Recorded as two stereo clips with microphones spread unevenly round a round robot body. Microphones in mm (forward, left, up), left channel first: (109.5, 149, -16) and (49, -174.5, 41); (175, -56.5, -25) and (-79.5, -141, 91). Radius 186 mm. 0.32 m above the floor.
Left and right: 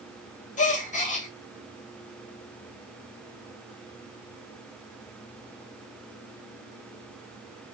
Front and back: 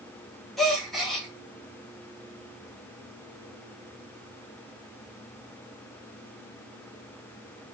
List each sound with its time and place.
0.6 s a gasp: 65° left, 1.3 m